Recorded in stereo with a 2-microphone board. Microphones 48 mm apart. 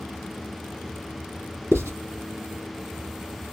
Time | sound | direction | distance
1.7 | writing | 65° right (ahead or behind) | 3 m